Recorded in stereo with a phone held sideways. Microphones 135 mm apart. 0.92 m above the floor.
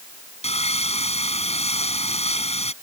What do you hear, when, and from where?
0.4 s sawing: 55° left (ahead or behind)